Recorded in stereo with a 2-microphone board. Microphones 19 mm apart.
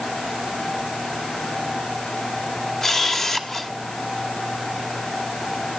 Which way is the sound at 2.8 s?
30° left (ahead or behind).